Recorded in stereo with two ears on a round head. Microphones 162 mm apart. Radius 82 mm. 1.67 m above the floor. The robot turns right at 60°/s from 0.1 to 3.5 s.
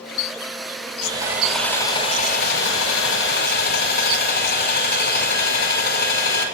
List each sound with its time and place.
1.0 s sawing: 30° right, 6 m; by 6.5 s 120° left, 6 m